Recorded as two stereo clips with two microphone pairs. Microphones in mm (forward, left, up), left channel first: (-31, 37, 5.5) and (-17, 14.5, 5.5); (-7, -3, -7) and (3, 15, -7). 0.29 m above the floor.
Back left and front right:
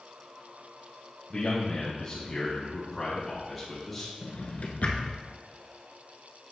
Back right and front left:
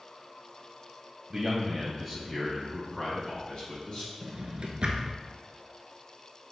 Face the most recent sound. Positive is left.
turn(degrees=100)